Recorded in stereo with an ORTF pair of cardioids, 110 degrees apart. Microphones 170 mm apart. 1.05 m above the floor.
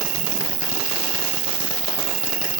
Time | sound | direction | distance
0.0 | an insect | 45° right | 3 m